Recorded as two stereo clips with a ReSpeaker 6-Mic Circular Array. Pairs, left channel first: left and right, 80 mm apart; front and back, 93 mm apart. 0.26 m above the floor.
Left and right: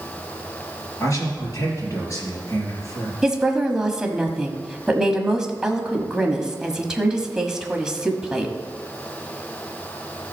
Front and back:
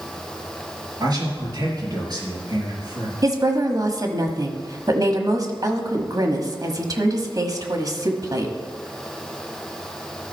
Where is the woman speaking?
170° right, 1.3 m.